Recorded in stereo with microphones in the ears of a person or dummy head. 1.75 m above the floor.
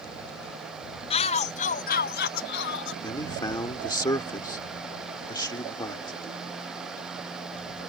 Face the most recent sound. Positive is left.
turn(degrees=25)  # may be behind; listen again after turning